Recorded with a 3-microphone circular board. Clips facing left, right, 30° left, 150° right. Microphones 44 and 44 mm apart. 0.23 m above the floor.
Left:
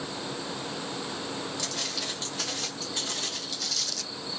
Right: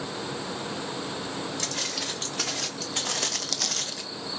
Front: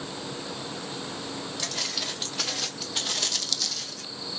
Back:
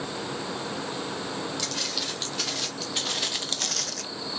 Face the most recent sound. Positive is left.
turn(degrees=-170)